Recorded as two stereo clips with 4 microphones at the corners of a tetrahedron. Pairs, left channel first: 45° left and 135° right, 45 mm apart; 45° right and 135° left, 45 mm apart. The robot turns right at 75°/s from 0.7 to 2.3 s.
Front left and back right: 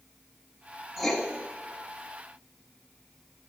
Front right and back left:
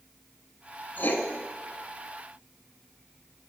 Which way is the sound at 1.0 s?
50° right.